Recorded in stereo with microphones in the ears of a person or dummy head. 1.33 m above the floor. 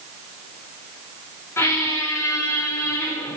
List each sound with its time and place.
1.6 s a squeak: 10° left (ahead or behind), 0.5 m